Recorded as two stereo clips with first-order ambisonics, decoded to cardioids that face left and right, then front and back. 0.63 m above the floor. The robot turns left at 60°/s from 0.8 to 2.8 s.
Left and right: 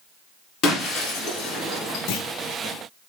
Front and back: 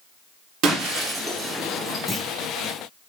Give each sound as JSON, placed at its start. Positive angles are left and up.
{"t": 0.6, "sound": "breaking glass", "azimuth_deg": 140, "distance_m": 1.4}
{"t": 2.1, "sound": "a clunk", "azimuth_deg": 80, "distance_m": 0.6}